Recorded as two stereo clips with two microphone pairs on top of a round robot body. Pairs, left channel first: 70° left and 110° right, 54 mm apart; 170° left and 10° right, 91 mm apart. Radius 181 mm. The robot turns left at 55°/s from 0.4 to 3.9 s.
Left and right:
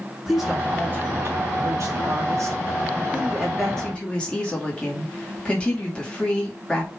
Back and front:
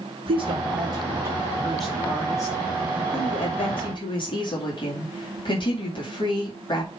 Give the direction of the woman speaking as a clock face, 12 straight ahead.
1 o'clock.